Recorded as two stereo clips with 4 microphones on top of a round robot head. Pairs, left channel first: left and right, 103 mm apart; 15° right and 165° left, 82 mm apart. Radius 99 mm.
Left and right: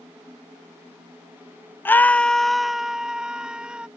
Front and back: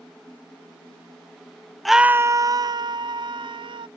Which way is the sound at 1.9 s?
70° left.